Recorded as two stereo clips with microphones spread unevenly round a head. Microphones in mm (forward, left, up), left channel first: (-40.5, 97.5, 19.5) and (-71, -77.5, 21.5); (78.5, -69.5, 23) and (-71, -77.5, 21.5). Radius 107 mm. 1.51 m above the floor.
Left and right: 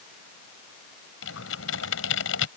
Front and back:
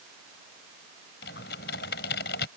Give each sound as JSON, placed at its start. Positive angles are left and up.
{"t": 1.2, "sound": "typing on a keyboard", "azimuth_deg": 45}